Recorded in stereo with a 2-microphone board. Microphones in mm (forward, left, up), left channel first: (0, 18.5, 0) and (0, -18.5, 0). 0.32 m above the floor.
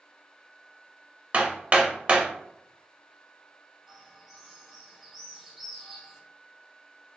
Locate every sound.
1.3 s hammering: 40° right (ahead or behind), 0.6 m
3.9 s a bird: 5° right (ahead or behind), 1.7 m